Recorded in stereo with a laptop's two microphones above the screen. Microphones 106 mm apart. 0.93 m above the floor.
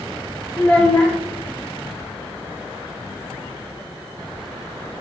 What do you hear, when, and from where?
0.6 s a child speaking: 15° left (ahead or behind), 0.7 m